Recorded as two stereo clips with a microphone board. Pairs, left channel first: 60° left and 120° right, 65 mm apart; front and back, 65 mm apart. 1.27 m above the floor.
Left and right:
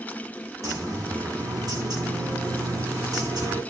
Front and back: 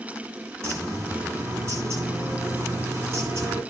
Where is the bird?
140° right, 9 m.